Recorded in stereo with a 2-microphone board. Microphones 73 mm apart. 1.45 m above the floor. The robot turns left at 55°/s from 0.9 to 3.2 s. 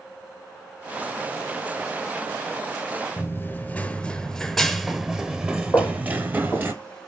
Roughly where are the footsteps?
Left.